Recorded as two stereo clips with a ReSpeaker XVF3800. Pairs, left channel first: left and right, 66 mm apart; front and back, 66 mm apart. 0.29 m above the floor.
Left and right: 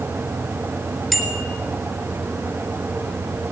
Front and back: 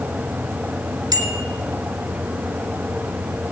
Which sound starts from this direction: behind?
A bicycle bell, at 1.1 s.